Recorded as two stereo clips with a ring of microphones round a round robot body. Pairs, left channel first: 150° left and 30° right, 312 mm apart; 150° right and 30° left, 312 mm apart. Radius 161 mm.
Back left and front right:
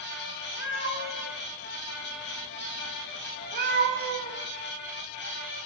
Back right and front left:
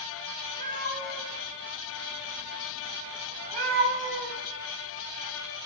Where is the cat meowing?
95° left, 3.5 m; by 4.4 s 15° left, 2.5 m.